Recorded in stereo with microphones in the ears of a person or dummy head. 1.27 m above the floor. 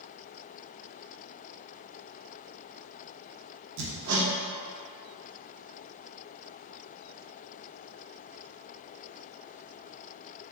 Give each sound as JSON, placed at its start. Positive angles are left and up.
{"t": 3.8, "sound": "hammering", "side_deg": -85, "distance_m": 1.1}